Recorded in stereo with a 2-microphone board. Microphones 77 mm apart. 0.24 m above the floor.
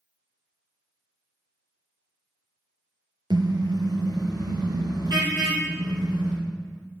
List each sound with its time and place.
3.3 s a car horn: 70° right (ahead or behind), 3 m; by 6.3 s 65° right (ahead or behind), 7 m